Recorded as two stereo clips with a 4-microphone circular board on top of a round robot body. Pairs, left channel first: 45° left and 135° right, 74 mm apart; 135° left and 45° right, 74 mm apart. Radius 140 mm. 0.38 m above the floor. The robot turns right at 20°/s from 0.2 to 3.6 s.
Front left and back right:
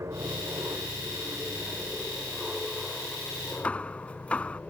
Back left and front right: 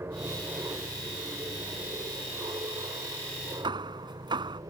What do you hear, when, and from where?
0.0 s an aircraft: 95° right; by 4.7 s 25° right
3.6 s hammering: 30° right